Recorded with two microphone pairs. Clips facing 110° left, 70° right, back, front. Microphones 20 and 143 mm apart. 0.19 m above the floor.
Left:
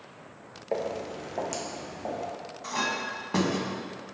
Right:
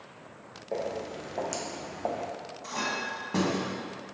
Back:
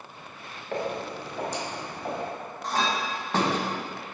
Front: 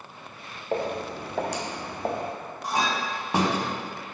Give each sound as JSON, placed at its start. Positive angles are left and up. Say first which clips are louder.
{"t": 0.7, "sound": "footsteps", "louder": "left 2 dB, front 2 dB", "azimuth_deg": 60, "distance_m": 1.0}
{"t": 2.6, "sound": "a clink", "louder": "left 2 dB, front 1 dB", "azimuth_deg": 60, "distance_m": 0.6}